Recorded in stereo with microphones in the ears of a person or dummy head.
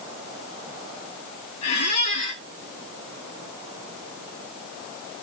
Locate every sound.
1.6 s a squeak: 35° left (ahead or behind), 0.7 m